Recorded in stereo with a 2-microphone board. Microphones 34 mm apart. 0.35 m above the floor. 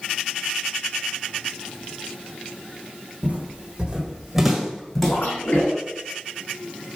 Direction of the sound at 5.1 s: 65° left (ahead or behind).